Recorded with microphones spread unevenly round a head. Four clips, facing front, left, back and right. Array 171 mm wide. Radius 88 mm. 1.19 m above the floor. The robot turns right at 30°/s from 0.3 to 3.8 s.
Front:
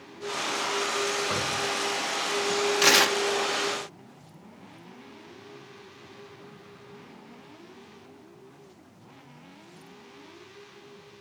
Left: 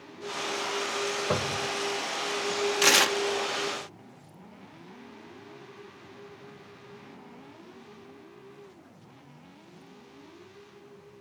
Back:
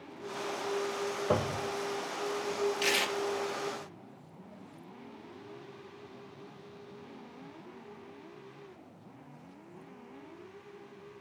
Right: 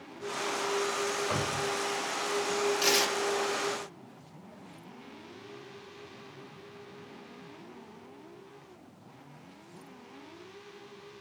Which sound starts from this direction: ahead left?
Tearing paper, at 2.8 s.